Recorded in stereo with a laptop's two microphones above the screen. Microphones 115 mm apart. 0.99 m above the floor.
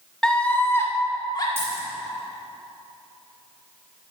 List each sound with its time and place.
0.2 s a scream: 5° left (ahead or behind), 1.5 m; by 1.5 s 35° left (ahead or behind), 1.9 m
1.6 s a dropped coin: 20° right (ahead or behind), 4.5 m